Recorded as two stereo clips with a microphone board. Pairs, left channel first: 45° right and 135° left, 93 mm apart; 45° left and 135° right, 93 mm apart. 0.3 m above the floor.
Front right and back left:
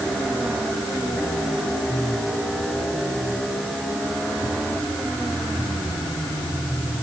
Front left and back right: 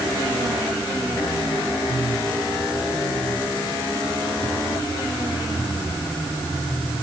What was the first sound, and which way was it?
Only background noise.